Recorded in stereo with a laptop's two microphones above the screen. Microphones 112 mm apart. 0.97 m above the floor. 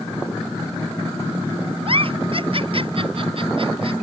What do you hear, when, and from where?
1.9 s a giggle: 55° right (ahead or behind)